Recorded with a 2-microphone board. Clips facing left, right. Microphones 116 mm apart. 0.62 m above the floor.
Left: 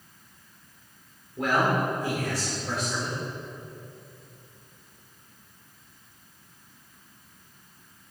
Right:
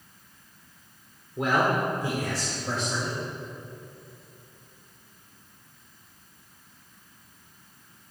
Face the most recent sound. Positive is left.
turn(degrees=-35)  # may be behind; listen again after turning